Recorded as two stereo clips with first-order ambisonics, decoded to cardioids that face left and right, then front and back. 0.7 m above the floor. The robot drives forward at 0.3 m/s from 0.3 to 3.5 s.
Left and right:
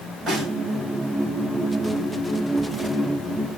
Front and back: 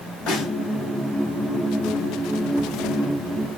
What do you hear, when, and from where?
0.3 s a snare drum: 15° right, 2.5 m